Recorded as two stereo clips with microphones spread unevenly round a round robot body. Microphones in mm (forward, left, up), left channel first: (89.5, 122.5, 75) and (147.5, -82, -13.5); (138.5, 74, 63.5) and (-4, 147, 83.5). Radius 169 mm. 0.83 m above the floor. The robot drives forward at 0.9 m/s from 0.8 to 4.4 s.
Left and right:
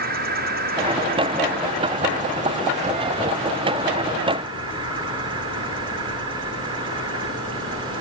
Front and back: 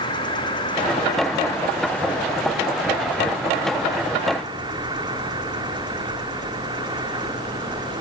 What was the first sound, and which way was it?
An insect, 85° right.